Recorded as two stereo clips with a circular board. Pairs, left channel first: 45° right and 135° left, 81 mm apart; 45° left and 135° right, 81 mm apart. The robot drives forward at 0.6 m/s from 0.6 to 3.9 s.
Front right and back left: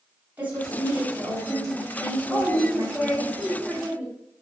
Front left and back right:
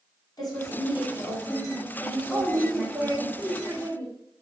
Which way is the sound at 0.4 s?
70° left.